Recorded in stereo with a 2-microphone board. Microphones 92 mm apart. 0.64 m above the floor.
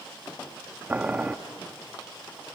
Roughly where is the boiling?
Centre.